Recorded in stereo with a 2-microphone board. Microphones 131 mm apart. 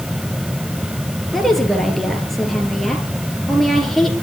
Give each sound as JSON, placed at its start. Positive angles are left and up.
{"t": 1.3, "sound": "a woman speaking", "side_deg": 0, "distance_m": 3.5}